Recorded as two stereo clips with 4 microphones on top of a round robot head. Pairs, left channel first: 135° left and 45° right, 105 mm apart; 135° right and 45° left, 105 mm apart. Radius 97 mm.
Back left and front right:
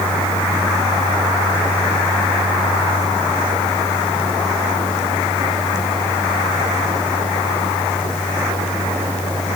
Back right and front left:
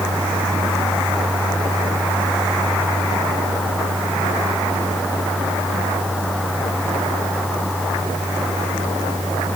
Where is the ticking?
No ticking in this recording.